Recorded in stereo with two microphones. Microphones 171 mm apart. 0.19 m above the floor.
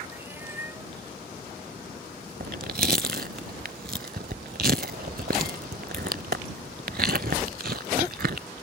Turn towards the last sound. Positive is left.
turn(degrees=-65)  # may be behind; listen again after turning